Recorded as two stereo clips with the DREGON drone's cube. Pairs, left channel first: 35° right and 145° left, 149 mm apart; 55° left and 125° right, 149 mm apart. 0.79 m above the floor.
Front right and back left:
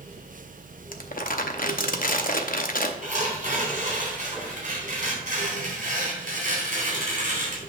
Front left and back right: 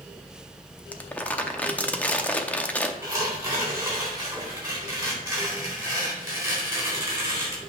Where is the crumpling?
25° right, 0.7 m.